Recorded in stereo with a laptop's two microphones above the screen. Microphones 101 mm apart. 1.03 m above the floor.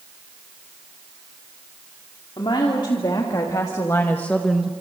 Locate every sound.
2.4 s a woman speaking: 55° left (ahead or behind), 2.5 m; by 4.7 s 15° right (ahead or behind), 0.8 m